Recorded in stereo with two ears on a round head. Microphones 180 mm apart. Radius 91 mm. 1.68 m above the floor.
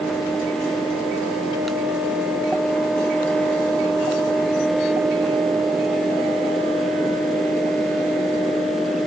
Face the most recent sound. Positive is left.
No sound to turn to.